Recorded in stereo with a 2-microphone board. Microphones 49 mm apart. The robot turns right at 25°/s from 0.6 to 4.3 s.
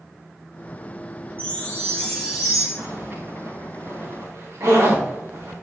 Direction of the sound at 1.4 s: 150° left.